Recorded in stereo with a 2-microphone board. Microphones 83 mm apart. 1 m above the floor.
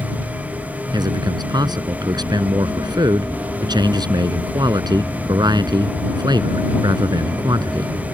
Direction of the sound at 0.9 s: 60° right (ahead or behind).